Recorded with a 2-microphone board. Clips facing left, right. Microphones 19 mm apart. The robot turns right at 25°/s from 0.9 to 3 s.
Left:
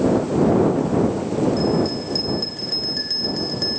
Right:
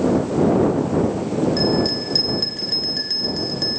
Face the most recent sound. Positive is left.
turn(degrees=0)